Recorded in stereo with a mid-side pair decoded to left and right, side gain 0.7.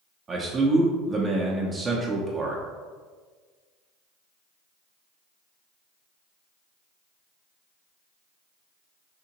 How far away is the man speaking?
About 0.7 m.